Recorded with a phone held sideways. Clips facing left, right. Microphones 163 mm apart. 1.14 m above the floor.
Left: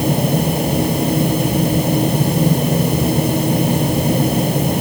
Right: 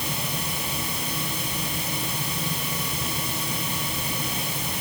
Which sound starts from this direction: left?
A fan, at 0.0 s.